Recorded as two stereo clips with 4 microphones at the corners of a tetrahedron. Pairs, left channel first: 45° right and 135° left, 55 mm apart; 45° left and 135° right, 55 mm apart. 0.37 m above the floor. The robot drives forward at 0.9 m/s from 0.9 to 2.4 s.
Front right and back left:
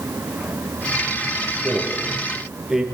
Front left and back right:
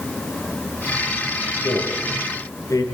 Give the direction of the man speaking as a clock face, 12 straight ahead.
10 o'clock.